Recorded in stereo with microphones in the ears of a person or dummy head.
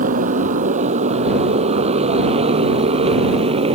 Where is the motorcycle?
40° right (ahead or behind); by 3.8 s 30° right (ahead or behind).